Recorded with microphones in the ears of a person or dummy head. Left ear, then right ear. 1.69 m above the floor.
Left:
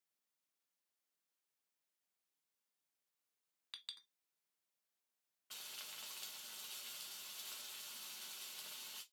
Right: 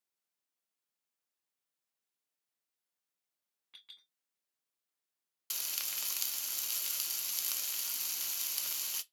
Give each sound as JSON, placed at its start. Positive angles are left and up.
{"t": 3.7, "sound": "a clink", "side_deg": 55, "distance_m": 1.8}
{"t": 5.5, "sound": "frying", "side_deg": -75, "distance_m": 0.5}